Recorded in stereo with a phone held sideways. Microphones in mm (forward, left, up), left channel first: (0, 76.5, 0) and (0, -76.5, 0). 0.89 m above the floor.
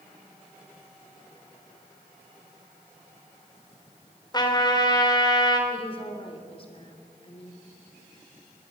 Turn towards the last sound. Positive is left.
turn(degrees=35)  # may be behind; listen again after turning